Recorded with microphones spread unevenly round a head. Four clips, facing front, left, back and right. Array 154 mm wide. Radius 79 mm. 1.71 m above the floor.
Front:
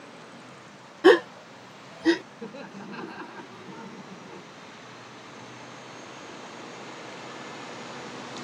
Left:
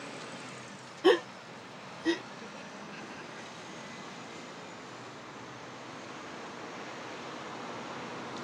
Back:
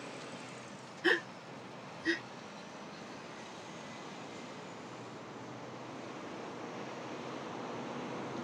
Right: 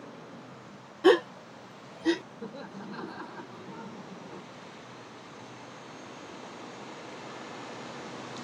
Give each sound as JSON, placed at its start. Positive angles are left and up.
{"t": 1.0, "sound": "a gasp", "azimuth_deg": -5}
{"t": 2.4, "sound": "laughter", "azimuth_deg": -25}